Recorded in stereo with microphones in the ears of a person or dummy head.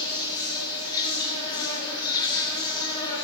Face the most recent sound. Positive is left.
turn(degrees=25)  # may be behind; listen again after turning